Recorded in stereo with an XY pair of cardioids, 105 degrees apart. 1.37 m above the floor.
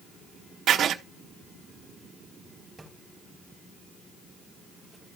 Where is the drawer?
15° right, 3.5 m.